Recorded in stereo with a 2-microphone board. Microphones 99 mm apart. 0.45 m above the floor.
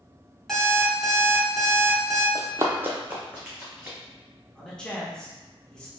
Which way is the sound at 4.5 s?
10° left (ahead or behind).